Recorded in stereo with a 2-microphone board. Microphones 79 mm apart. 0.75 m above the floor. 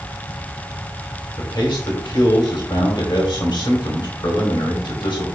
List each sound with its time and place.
1.4 s a man speaking: 70° left (ahead or behind), 2.5 m